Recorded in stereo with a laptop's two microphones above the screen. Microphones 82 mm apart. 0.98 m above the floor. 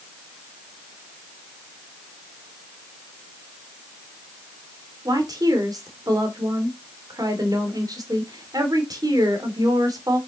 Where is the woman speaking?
55° right (ahead or behind), 2.5 m.